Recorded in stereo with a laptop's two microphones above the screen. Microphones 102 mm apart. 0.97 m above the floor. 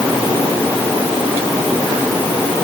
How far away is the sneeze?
I don't hear a sneeze.